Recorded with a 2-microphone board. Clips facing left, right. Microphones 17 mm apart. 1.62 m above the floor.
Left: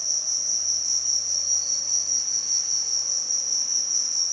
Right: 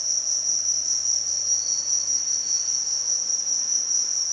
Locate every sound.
0.0 s an insect: 40° right (ahead or behind), 1.3 m